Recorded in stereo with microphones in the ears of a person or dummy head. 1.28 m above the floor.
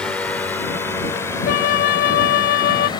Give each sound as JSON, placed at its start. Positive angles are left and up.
{"t": 0.0, "sound": "a drone", "side_deg": 10}
{"t": 1.4, "sound": "a flute", "side_deg": 55}